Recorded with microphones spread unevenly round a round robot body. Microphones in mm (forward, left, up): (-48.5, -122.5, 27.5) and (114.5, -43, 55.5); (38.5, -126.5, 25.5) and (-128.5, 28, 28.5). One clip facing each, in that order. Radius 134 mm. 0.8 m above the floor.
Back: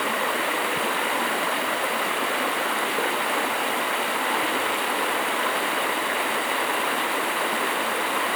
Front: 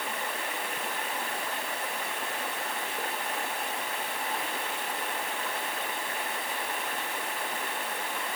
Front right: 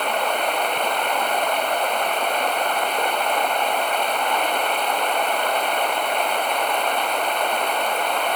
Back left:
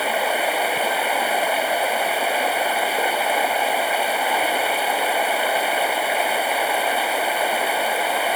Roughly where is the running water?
Behind right.